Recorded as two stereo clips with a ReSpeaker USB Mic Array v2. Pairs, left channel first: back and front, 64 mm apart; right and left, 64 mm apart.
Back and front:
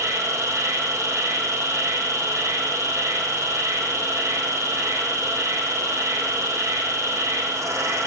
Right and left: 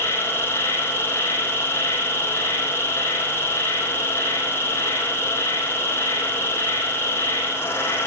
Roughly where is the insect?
Ahead right.